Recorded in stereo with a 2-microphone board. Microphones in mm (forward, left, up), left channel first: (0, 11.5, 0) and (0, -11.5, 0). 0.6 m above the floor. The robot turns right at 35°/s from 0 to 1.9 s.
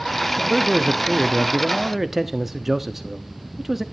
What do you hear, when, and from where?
0.4 s a man speaking: 25° right (ahead or behind), 0.6 m; by 3.8 s 10° right (ahead or behind), 0.6 m